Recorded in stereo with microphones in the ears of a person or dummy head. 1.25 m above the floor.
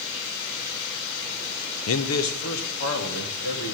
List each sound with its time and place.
1.9 s a man speaking: 75° left (ahead or behind), 0.6 m; by 3.7 s 85° left, 3 m